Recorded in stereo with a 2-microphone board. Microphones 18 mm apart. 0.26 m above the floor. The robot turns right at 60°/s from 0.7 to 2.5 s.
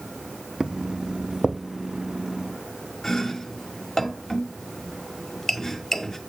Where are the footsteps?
45° right (ahead or behind), 0.6 m; by 1.6 s 65° right (ahead or behind), 0.6 m.